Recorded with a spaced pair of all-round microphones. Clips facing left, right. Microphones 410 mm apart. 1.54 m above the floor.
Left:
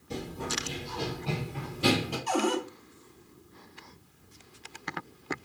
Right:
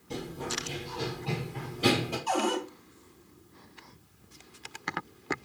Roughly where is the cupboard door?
Left.